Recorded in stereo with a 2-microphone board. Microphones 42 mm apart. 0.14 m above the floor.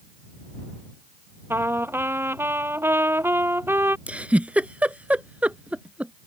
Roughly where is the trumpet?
Right.